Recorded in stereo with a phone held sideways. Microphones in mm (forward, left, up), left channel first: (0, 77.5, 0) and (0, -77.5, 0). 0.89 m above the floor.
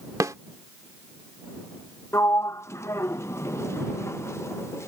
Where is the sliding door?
15° left (ahead or behind).